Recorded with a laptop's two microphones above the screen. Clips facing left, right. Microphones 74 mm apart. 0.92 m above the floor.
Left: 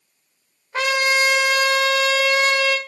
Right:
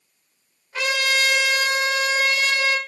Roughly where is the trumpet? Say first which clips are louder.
Left 3 dB; left.